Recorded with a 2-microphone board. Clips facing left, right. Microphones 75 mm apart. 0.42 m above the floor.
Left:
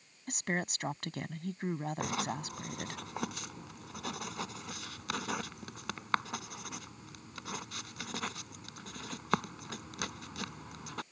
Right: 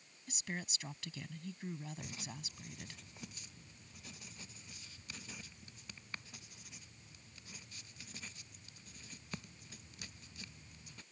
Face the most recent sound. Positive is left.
turn(degrees=75)  # may be behind; listen again after turning